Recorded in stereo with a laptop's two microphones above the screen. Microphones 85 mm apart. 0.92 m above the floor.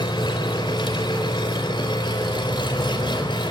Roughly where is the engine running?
Left.